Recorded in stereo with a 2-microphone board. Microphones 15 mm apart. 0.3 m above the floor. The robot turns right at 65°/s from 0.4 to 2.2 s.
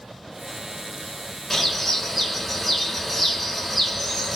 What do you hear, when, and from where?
1.5 s a bird: 15° left (ahead or behind), 1.6 m; by 4.4 s centre (ahead or behind), 1.6 m